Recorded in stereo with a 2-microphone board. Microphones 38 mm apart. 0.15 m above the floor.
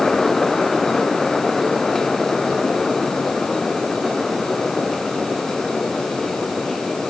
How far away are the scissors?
No scissors in this recording.